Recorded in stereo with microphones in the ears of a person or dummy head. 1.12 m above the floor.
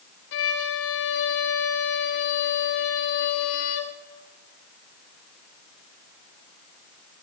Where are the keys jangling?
I don't hear keys jangling.